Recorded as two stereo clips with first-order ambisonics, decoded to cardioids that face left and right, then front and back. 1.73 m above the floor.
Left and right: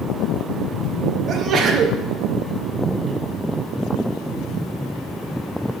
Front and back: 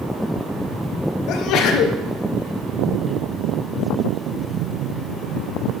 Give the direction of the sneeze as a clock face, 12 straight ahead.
1 o'clock.